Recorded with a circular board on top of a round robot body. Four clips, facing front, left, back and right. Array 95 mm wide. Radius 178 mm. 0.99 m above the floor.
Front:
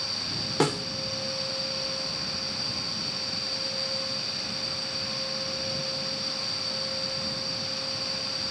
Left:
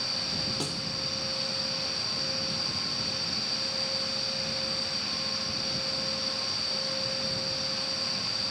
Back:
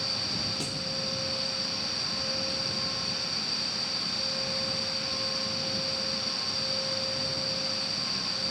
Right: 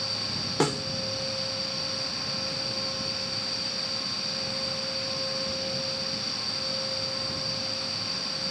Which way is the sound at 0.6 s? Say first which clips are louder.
Right 10 dB, front 12 dB; 40° right.